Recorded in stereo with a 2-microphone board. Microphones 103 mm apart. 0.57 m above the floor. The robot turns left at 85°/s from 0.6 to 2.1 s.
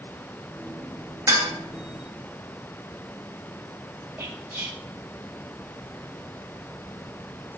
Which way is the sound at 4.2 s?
15° right (ahead or behind).